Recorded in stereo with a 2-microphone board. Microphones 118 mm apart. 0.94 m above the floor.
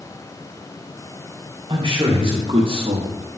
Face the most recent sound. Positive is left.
turn(degrees=-60)  # may be behind; listen again after turning